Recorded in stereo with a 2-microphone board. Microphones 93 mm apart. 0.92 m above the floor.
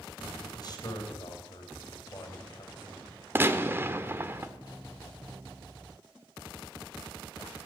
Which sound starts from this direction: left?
A man speaking, at 0.4 s.